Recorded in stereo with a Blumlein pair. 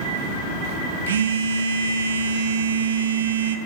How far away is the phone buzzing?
About 0.5 m.